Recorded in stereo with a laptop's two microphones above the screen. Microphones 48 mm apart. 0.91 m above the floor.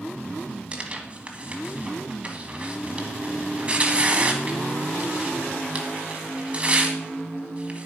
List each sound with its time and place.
0.7 s tearing paper: 25° right (ahead or behind), 1.4 m